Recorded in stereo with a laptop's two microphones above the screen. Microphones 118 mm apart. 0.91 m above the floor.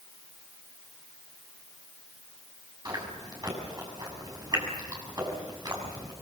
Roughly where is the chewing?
Right.